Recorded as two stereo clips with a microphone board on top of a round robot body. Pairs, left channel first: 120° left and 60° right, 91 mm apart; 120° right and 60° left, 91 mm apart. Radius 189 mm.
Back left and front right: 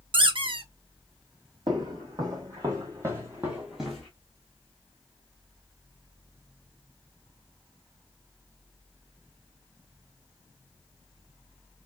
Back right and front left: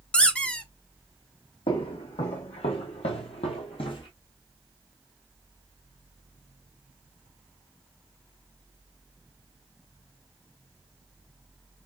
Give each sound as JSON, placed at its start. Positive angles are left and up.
{"t": 0.1, "sound": "a squeak", "azimuth_deg": -45, "distance_m": 1.3}
{"t": 1.7, "sound": "footsteps", "azimuth_deg": -105, "distance_m": 1.7}